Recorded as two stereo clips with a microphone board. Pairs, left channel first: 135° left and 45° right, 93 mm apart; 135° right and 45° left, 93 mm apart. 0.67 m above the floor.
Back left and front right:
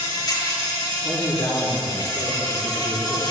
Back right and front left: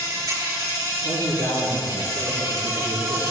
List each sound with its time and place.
0.0 s an insect: 95° left, 5.5 m
1.0 s a man speaking: 80° left, 5 m